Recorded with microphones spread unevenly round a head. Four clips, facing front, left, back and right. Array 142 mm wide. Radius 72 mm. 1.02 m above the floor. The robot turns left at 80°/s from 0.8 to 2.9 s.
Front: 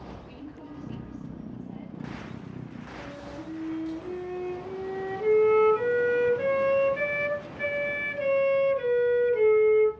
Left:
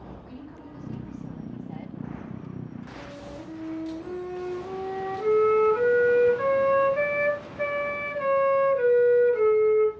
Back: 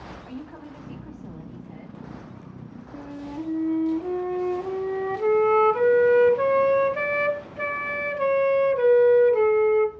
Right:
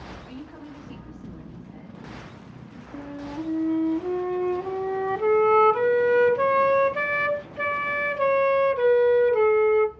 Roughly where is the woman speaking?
Behind.